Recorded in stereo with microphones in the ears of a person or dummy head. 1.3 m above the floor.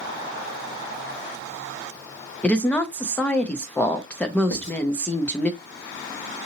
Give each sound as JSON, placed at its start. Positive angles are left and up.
{"t": 2.4, "sound": "a woman speaking", "side_deg": 5, "distance_m": 0.5}
{"t": 4.5, "sound": "writing", "side_deg": 55, "distance_m": 1.8}